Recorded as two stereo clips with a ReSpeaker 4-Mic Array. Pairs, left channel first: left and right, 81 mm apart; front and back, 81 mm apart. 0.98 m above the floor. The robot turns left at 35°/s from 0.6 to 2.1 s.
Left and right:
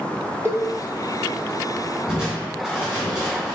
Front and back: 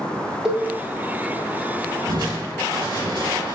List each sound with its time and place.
0.5 s a cowbell: 105° right, 1.0 m
2.1 s crushing: 170° right, 3.5 m